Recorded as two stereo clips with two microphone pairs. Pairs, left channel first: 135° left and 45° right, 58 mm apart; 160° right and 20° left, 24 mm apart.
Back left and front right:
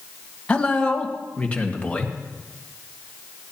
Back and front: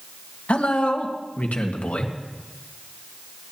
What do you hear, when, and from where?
0.5 s a man speaking: 155° right, 1.8 m